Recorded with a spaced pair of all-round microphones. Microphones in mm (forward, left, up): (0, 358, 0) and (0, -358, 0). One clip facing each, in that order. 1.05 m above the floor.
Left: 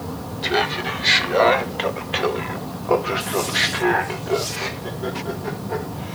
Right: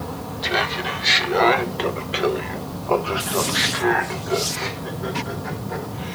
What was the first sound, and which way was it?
Laughter, 10° right (ahead or behind).